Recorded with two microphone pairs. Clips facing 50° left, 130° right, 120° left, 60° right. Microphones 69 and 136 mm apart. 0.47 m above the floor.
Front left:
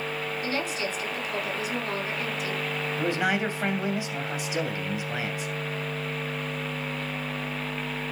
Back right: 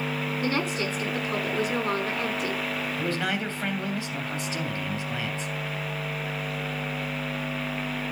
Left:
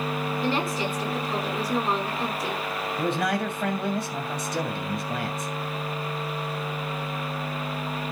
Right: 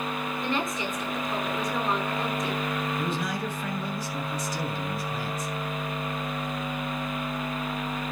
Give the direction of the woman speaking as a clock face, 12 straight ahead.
6 o'clock.